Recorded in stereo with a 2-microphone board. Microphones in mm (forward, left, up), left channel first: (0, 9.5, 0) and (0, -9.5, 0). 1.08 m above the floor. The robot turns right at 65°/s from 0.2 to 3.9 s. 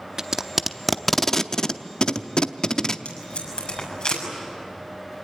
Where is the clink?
No clink in this recording.